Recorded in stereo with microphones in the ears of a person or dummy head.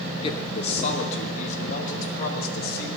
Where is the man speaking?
30° left (ahead or behind), 2.5 m; by 2.9 s 50° left (ahead or behind), 3 m.